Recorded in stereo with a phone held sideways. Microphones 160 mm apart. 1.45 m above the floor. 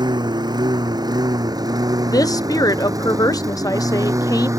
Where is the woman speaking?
20° left (ahead or behind).